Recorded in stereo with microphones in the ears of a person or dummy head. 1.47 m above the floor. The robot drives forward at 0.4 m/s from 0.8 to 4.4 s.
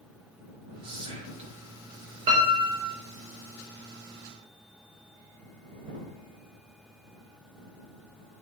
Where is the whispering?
25° right (ahead or behind), 1.5 m; by 1.6 s 30° right (ahead or behind), 1.2 m.